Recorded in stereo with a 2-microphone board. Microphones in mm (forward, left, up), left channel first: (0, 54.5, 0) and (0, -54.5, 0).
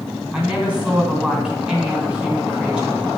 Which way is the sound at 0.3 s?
10° right (ahead or behind).